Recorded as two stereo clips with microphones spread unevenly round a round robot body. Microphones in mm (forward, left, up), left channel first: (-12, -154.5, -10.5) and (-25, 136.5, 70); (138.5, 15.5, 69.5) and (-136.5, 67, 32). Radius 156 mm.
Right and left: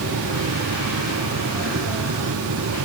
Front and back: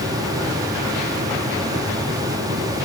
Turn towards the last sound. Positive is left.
No sound to turn to.